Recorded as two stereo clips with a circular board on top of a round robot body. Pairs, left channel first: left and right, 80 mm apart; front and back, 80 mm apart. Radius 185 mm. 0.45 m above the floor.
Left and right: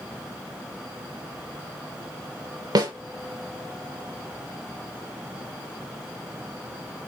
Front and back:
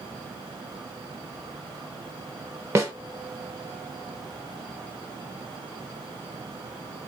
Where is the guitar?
No guitar in this recording.